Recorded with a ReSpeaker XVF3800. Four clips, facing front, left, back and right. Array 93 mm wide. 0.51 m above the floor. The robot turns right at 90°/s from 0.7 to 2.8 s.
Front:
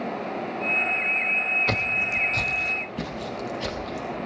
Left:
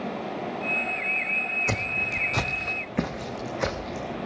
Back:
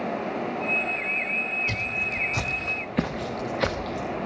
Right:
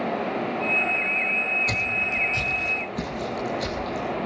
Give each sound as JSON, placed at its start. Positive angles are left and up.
{"t": 1.7, "sound": "footsteps", "azimuth_deg": 20, "distance_m": 1.7}